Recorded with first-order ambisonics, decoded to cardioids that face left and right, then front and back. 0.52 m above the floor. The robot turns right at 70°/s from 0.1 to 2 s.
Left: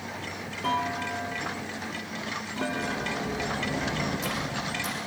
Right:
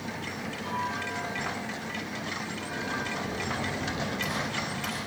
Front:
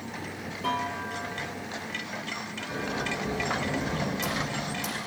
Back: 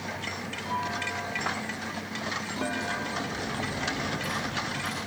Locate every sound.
0.6 s a clunk: 45° left, 3.5 m; by 3.3 s 140° left, 3.5 m
2.7 s a sliding door: 5° left, 6 m